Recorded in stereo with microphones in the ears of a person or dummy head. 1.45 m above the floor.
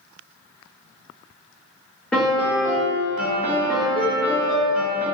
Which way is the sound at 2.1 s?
5° left (ahead or behind).